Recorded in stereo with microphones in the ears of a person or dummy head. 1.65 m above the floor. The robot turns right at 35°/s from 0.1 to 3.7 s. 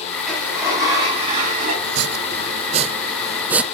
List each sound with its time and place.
0.3 s a sliding door: straight behind, 5 m; by 1.7 s 125° right, 5 m
1.8 s chopping: 70° right, 0.6 m; by 3.6 s 5° right, 0.6 m